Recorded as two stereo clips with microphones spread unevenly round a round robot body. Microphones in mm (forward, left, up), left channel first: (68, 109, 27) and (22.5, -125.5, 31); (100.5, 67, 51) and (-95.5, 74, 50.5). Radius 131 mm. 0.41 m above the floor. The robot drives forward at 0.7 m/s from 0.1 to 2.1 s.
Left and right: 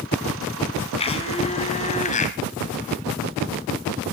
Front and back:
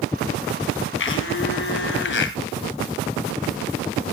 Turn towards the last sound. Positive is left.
turn(degrees=20)